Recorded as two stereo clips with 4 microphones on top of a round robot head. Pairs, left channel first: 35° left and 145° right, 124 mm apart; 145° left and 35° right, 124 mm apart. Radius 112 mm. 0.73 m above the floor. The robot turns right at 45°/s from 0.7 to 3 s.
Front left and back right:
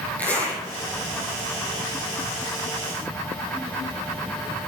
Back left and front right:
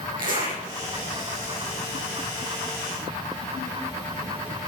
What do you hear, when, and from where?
0.2 s a zipper: 45° right, 7 m